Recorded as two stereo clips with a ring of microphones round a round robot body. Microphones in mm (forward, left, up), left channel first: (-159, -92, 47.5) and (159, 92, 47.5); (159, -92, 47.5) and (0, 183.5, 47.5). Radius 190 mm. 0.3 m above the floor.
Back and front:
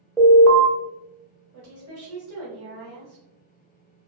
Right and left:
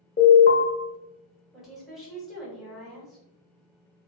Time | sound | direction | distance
0.2 | an alarm | 55° right | 0.9 m
1.5 | a woman speaking | 30° left | 1.6 m